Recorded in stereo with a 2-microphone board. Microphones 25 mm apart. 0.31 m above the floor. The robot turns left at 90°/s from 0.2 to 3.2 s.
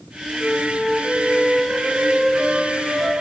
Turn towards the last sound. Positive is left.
turn(degrees=155)